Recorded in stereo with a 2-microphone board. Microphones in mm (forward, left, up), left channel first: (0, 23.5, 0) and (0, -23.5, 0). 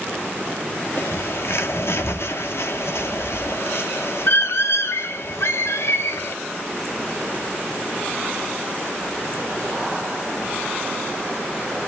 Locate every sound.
1.0 s a bird: 60° left (ahead or behind), 1.0 m